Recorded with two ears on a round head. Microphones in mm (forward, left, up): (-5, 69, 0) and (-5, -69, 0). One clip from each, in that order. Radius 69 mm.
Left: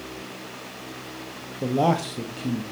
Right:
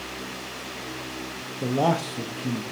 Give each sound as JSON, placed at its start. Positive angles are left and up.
{"t": 1.6, "sound": "a man speaking", "side_deg": -10, "distance_m": 1.0}